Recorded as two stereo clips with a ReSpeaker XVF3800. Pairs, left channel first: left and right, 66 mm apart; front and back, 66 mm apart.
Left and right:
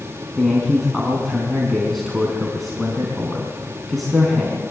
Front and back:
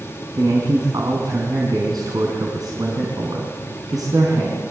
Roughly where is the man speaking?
Behind.